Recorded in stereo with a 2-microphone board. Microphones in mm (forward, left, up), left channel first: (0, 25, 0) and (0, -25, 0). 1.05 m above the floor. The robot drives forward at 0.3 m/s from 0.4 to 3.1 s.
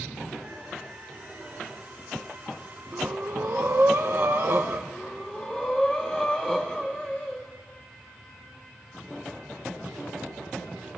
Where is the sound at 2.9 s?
50° right (ahead or behind), 0.8 m; by 4.8 s 45° right (ahead or behind), 0.8 m.